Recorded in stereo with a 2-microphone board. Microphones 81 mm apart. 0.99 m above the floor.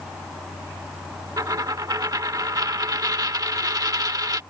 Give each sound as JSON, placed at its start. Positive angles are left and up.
{"t": 1.4, "sound": "a dropped coin", "side_deg": -50}